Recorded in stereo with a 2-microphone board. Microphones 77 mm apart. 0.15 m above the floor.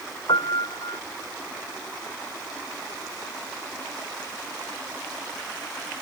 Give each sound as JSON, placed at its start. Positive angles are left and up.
{"t": 0.3, "sound": "a piano", "side_deg": 75}